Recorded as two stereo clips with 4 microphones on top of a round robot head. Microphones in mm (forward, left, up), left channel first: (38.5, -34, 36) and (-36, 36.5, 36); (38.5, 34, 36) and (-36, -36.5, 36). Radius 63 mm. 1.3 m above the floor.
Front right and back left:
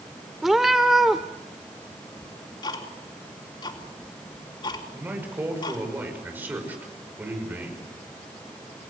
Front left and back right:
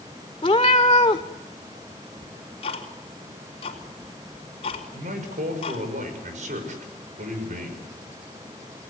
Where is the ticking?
5° left, 3.5 m.